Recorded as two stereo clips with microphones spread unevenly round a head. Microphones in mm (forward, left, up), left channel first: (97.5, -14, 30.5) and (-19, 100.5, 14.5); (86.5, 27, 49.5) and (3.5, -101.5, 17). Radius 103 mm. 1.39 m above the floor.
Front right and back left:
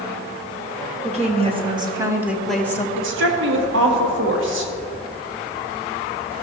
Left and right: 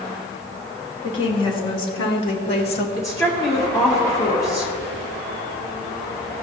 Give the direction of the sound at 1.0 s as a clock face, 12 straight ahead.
9 o'clock.